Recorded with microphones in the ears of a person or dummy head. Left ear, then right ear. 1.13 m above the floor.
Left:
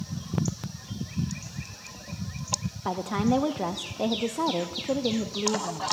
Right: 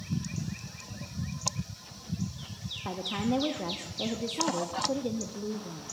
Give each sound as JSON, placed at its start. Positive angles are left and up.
{"t": 2.9, "sound": "a woman speaking", "side_deg": 30, "distance_m": 0.7}